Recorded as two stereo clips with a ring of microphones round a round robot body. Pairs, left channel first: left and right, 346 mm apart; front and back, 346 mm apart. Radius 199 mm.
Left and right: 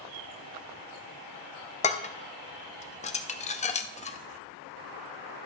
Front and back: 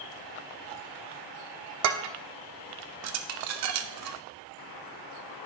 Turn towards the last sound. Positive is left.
turn(degrees=155)